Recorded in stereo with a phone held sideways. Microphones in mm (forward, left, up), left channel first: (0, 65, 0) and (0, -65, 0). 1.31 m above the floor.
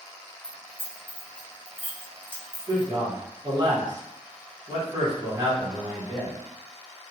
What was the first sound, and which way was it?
Keys jangling, 15° right (ahead or behind).